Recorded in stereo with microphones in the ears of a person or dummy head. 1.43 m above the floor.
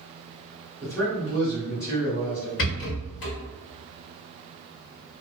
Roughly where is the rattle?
Left.